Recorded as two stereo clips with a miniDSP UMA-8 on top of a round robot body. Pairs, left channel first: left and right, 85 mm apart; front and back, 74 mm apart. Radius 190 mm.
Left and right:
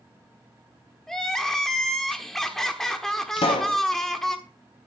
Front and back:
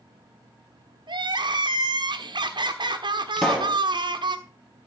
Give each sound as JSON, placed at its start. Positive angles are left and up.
{"t": 1.1, "sound": "crying", "azimuth_deg": 175, "distance_m": 1.1}
{"t": 3.4, "sound": "a pop", "azimuth_deg": 85, "distance_m": 1.2}